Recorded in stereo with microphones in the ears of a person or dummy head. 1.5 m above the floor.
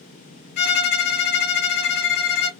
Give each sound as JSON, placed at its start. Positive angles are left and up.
{"t": 0.6, "sound": "a violin", "side_deg": 55, "distance_m": 0.6}